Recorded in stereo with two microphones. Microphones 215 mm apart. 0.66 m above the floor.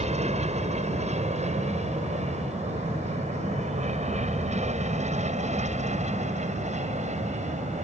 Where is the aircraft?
30° right (ahead or behind).